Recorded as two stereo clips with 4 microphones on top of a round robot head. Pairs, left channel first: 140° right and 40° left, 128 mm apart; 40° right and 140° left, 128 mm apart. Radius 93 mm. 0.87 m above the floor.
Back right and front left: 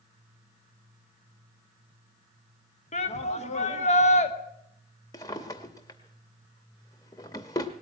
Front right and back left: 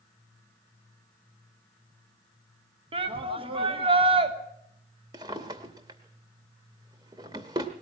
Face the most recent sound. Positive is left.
turn(degrees=175)